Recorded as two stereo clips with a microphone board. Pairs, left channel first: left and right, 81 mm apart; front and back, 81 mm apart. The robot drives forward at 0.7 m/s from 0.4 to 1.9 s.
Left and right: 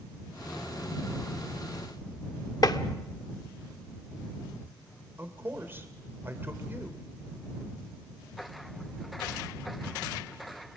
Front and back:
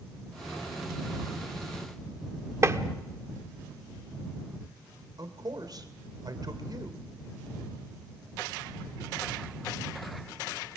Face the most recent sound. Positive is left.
turn(degrees=-150)